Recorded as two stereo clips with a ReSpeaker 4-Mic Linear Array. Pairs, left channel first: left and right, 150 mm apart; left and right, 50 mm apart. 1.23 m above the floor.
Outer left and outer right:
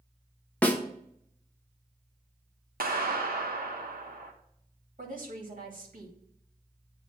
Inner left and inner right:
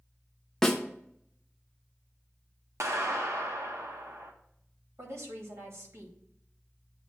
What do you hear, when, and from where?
0.6 s a snare drum: 10° left (ahead or behind), 0.9 m
2.8 s a clap: 70° right (ahead or behind), 1.3 m
5.0 s a woman speaking: 60° right (ahead or behind), 2.5 m